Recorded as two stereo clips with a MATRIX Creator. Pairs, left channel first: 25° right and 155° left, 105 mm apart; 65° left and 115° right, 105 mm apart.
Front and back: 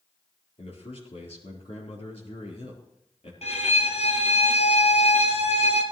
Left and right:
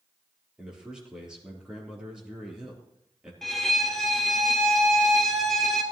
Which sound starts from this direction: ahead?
A violin, at 3.4 s.